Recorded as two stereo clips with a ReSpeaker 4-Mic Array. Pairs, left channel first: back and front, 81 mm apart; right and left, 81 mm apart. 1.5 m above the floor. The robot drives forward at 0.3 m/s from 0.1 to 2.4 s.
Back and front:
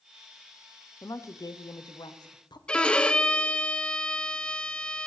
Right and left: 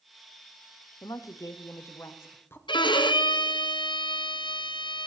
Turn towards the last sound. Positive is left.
turn(degrees=-100)